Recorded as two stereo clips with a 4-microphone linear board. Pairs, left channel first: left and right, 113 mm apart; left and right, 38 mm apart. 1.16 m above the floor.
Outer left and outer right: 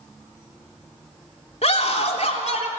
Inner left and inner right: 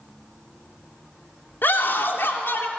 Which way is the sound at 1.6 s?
65° left (ahead or behind).